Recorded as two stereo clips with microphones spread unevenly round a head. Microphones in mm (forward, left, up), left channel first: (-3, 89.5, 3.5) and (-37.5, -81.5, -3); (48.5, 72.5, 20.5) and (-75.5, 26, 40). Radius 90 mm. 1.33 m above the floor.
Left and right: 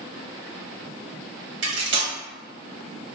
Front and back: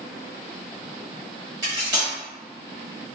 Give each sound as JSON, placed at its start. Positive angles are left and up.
{"t": 1.6, "sound": "cutlery clinking", "azimuth_deg": -95, "distance_m": 0.8}